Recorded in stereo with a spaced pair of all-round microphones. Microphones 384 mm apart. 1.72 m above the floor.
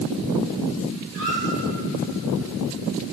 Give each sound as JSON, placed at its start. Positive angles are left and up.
{"t": 1.1, "sound": "a squeak", "side_deg": -50, "distance_m": 3.0}